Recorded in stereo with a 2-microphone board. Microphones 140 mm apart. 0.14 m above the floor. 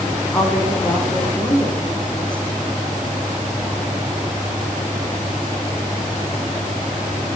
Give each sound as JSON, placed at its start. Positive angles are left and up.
{"t": 0.3, "sound": "a woman speaking", "side_deg": 10, "distance_m": 7.0}